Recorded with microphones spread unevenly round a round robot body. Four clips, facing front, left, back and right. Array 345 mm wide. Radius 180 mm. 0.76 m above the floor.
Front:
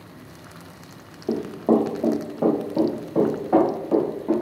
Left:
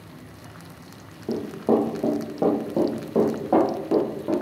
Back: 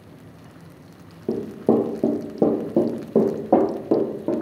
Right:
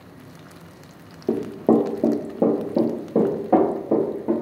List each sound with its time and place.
1.3 s running footsteps: 110° right, 0.8 m; by 4.3 s straight behind, 1.9 m